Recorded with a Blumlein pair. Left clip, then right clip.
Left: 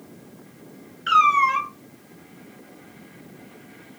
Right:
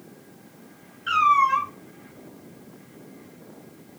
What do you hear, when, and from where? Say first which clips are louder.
1.1 s a cat meowing: left 2 dB; 25° left, 1.5 m